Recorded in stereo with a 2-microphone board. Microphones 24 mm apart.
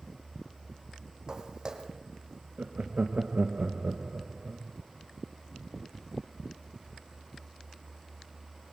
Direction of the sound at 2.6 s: 65° right (ahead or behind).